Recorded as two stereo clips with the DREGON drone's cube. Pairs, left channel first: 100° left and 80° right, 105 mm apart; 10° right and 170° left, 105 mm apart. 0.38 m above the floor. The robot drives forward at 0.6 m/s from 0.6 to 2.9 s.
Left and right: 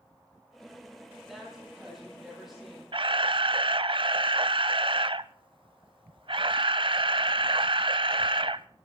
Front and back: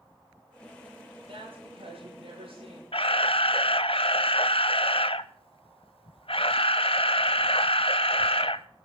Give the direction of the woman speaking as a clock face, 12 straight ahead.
6 o'clock.